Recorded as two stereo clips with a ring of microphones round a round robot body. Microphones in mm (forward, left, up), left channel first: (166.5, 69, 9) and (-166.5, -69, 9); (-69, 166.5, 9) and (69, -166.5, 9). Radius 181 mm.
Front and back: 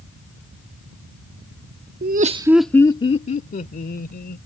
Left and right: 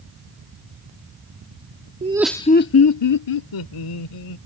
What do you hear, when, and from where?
2.0 s laughter: 120° right; by 4.4 s 85° left